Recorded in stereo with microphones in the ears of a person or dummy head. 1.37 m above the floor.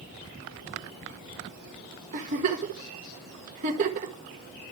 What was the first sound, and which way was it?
A giggle, 40° right (ahead or behind).